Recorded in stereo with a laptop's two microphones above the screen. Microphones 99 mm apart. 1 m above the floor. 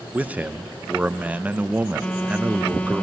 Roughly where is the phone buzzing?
Centre.